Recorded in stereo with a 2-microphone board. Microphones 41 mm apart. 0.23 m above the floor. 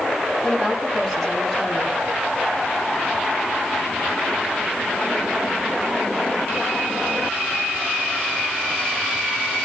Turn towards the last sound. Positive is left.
turn(degrees=5)  # may be behind; listen again after turning